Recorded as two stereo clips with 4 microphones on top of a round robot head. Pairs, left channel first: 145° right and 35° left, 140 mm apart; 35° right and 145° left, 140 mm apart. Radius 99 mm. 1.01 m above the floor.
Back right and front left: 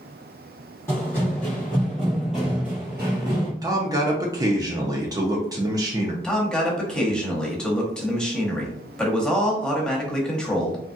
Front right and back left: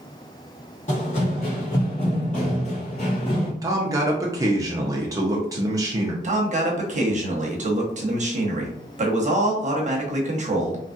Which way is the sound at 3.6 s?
90° left.